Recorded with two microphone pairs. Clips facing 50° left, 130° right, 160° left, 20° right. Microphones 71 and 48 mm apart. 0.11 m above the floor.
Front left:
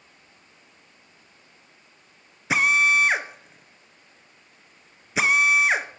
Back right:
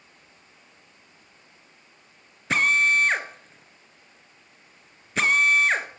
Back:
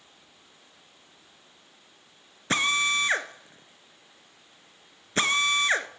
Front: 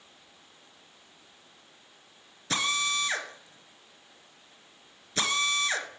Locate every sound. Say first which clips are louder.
2.5 s a drill: front left 1 dB, back 5 dB; 130° left, 0.8 m